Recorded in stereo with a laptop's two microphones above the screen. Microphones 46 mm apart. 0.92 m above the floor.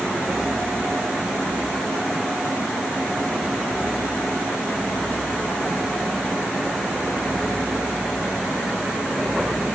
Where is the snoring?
No snoring in this recording.